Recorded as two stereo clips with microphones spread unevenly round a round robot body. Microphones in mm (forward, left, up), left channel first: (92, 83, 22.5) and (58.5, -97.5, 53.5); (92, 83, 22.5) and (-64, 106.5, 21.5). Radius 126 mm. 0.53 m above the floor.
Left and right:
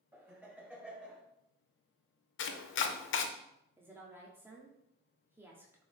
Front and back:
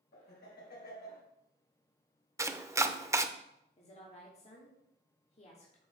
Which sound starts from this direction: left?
Chopping, at 2.4 s.